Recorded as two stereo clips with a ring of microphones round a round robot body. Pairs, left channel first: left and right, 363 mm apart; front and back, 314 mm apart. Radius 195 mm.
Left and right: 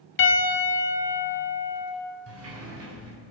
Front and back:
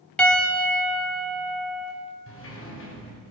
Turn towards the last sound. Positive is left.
turn(degrees=-45)